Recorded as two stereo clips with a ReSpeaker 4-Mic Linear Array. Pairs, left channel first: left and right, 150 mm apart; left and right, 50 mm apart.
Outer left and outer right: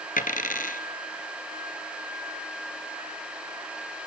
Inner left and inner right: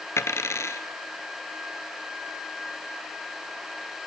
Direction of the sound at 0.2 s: 70° left (ahead or behind).